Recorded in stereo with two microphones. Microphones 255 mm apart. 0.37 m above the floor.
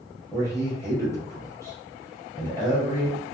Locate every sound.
0.3 s a man speaking: 10° left (ahead or behind), 1.9 m